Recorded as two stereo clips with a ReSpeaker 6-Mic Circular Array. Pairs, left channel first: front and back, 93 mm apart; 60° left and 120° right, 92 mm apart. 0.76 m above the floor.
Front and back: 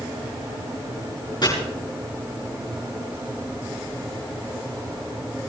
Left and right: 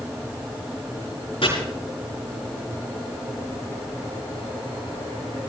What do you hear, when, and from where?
1.4 s chopping: 40° left, 7.5 m